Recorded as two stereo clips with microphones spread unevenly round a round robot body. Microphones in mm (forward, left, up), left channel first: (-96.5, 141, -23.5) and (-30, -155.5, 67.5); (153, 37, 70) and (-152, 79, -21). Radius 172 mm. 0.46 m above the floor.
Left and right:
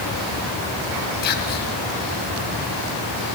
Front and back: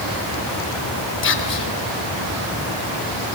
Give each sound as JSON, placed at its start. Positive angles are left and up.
{"t": 1.2, "sound": "whispering", "azimuth_deg": 50, "distance_m": 2.5}